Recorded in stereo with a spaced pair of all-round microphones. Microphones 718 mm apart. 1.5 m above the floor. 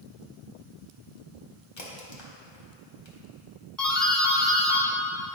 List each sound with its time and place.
1.8 s a crack: 40° left (ahead or behind), 1.5 m
3.8 s a doorbell: centre (ahead or behind), 1.6 m